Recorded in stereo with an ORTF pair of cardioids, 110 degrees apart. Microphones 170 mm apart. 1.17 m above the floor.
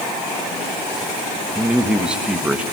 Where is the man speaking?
5° right, 1.2 m.